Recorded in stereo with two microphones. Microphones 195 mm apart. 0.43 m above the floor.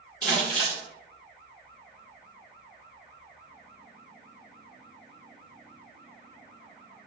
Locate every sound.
0.2 s crumpling: 5° left (ahead or behind), 1.7 m